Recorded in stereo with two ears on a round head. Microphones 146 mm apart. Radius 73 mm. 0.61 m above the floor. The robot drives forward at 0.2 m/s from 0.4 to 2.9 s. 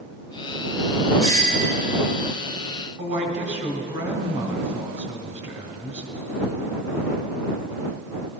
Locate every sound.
1.2 s a doorbell: 40° right (ahead or behind), 2.5 m; by 1.8 s 35° right (ahead or behind), 2.5 m
3.0 s a woman speaking: 40° right (ahead or behind), 2.5 m